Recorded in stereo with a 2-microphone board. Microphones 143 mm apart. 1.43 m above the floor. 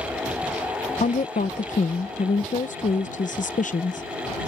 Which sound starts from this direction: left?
A woman speaking, at 1.0 s.